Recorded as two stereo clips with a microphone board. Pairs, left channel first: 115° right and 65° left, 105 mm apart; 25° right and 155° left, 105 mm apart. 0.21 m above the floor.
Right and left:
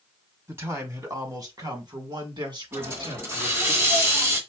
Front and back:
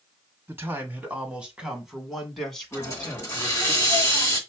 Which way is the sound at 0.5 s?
110° left.